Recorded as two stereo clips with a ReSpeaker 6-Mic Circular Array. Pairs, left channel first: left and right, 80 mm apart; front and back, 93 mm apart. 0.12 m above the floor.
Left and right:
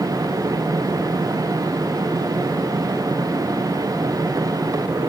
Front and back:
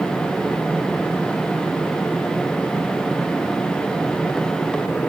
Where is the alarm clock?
I don't hear an alarm clock.